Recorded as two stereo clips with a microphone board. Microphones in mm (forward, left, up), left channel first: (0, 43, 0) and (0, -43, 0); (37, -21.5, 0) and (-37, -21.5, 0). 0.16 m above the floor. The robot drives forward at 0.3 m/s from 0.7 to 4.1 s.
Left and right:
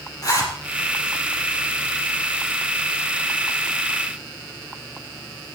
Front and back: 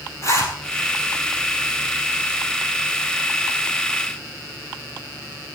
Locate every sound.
0.2 s a zipper: 45° left, 4 m